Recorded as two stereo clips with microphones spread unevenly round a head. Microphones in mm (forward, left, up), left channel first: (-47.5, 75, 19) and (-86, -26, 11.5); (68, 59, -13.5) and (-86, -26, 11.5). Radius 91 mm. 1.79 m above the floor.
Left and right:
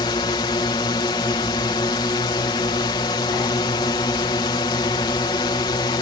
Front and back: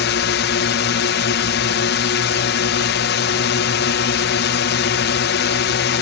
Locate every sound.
0.0 s a drone: 10° left